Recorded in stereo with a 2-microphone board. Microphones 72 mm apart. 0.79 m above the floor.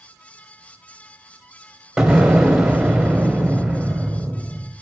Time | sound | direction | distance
2.0 | an explosion | 10° right (ahead or behind) | 0.9 m